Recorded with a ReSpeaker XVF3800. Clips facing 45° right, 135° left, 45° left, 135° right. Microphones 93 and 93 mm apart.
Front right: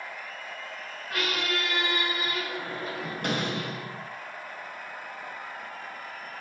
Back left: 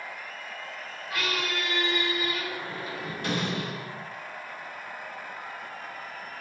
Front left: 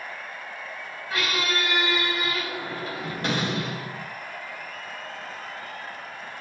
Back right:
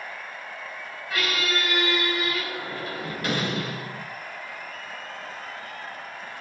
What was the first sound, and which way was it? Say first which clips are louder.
A squeak: front right 1 dB, even; 15° right.